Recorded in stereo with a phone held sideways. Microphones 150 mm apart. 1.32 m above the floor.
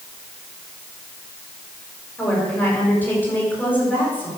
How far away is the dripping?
I don't hear dripping.